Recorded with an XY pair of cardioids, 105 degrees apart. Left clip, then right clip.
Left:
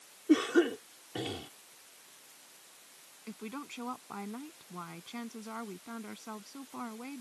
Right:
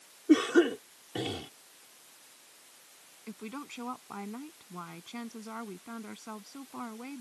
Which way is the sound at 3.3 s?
5° right.